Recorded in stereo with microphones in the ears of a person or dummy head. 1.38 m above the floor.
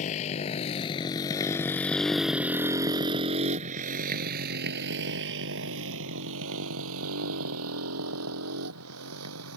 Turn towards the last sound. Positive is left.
turn(degrees=-80)